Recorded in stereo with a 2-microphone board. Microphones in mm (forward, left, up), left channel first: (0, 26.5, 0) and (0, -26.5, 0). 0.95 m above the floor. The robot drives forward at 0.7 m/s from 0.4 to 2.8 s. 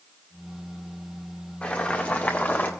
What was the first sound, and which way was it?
Boiling, 25° left (ahead or behind).